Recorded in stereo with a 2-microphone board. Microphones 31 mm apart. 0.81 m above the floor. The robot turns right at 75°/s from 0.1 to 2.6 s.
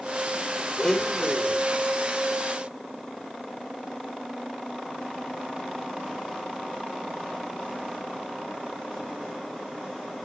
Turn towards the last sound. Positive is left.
turn(degrees=-65)